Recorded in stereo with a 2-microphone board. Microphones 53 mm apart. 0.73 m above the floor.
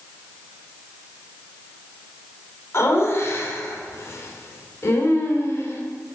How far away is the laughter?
About 2.5 m.